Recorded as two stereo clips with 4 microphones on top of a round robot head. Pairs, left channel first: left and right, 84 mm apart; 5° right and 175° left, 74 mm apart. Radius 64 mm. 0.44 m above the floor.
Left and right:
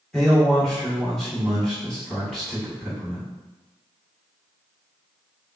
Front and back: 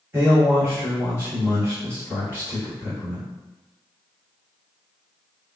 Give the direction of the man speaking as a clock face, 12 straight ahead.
6 o'clock.